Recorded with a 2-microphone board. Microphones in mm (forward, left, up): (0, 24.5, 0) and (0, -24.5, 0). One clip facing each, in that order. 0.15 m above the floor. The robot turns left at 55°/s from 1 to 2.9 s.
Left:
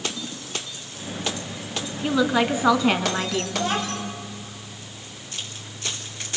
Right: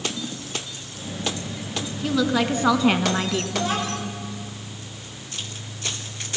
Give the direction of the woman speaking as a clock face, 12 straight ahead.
11 o'clock.